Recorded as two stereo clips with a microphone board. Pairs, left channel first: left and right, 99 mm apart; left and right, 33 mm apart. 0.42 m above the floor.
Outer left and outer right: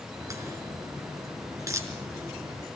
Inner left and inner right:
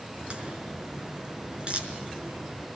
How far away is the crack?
About 5 m.